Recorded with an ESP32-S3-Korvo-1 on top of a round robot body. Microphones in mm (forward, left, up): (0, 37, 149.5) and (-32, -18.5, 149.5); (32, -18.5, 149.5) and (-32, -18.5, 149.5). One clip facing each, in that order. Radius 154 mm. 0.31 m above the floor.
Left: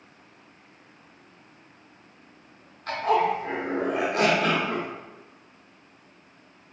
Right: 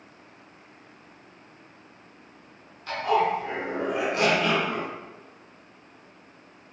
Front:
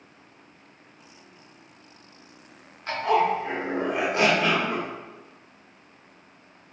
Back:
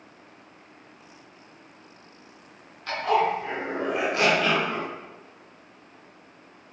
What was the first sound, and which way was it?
A zipper, 60° left.